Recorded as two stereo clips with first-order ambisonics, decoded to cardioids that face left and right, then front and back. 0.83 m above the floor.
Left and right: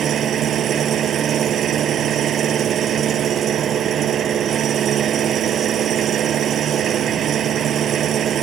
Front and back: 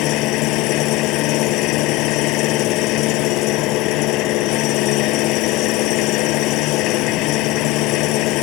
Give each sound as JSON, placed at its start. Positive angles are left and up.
{"t": 0.0, "sound": "an engine running", "azimuth_deg": -30}